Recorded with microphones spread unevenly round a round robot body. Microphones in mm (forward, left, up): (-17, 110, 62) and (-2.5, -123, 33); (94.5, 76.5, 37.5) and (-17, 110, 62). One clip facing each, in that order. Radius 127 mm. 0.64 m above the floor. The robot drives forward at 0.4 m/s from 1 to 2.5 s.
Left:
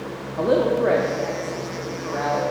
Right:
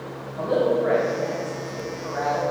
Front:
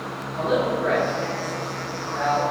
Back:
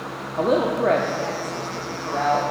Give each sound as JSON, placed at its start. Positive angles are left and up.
{"t": 0.4, "sound": "a woman speaking", "azimuth_deg": 115, "distance_m": 1.0}